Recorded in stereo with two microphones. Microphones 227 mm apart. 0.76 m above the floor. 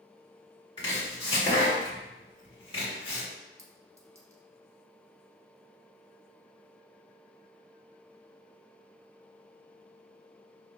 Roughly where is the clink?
Centre.